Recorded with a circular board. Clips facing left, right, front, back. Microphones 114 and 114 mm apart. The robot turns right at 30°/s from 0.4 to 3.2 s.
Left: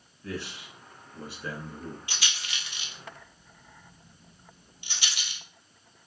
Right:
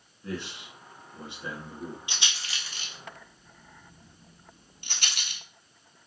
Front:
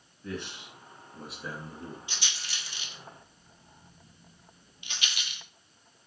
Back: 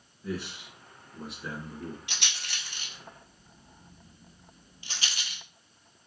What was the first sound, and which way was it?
A man speaking, 110° right.